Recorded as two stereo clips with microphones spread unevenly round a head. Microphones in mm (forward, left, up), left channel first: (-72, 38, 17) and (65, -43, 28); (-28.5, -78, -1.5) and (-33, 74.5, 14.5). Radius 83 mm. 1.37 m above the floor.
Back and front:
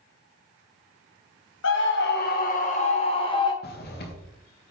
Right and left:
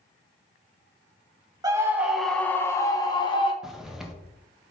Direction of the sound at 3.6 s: Straight behind.